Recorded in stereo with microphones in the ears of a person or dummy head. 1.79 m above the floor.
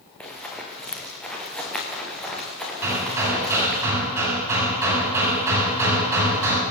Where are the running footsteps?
Centre (ahead or behind), 6.5 m; by 3.8 s 5° right (ahead or behind), 8.5 m.